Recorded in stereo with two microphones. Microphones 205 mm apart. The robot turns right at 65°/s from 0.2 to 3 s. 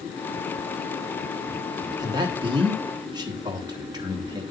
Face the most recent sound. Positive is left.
turn(degrees=-20)  # may be behind; listen again after turning